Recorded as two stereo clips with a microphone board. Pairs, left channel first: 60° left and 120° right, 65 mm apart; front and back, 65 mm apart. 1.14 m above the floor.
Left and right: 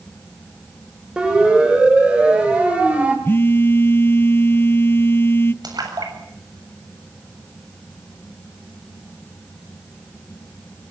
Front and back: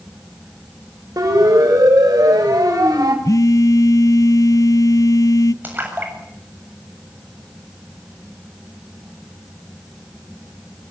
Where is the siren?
165° left, 6.5 m; by 3.1 s 170° left, 6 m.